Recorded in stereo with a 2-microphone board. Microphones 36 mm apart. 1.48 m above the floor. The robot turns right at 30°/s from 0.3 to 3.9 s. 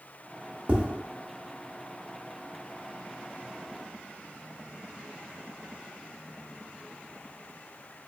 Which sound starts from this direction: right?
Tapping, at 0.7 s.